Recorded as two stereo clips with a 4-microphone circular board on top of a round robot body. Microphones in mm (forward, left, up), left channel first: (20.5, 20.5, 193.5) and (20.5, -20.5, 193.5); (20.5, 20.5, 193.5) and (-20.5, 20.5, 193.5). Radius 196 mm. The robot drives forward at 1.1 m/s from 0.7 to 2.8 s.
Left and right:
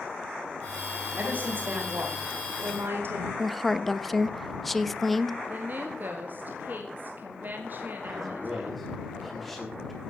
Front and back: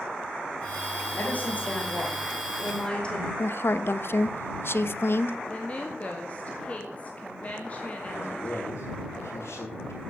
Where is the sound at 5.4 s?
55° right, 2.5 m.